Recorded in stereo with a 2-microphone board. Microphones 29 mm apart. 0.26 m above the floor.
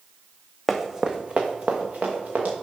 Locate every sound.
0.7 s running footsteps: centre (ahead or behind), 0.7 m; by 2.5 s 75° right (ahead or behind), 1.9 m